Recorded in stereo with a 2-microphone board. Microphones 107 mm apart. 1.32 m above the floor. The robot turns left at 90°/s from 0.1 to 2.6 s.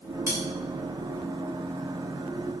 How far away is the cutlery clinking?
About 4.5 m.